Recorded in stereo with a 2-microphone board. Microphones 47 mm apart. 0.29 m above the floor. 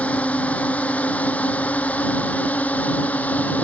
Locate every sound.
0.0 s a drone: 30° left (ahead or behind)